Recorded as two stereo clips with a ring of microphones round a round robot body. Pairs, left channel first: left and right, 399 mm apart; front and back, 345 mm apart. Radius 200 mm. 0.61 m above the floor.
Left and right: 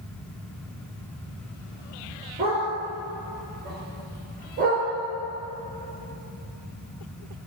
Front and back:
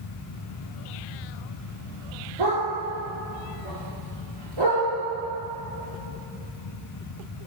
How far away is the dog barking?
About 4.5 m.